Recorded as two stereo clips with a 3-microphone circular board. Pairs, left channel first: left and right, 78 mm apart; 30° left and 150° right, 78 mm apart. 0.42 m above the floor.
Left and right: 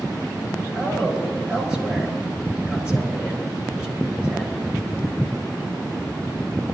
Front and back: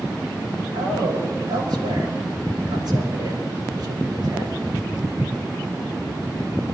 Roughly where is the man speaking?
Behind.